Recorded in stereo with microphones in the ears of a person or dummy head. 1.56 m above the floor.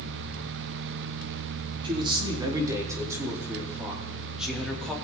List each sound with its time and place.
1.8 s a man speaking: 25° right (ahead or behind), 4.5 m; by 4.9 s 5° left (ahead or behind), 4 m